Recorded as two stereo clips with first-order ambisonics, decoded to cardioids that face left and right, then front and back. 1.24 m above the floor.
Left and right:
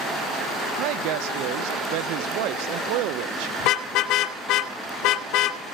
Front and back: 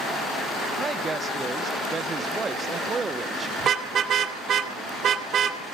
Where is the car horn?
120° left, 2 m.